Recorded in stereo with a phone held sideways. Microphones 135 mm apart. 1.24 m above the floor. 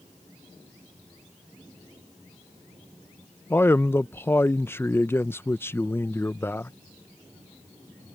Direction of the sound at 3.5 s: 15° left (ahead or behind).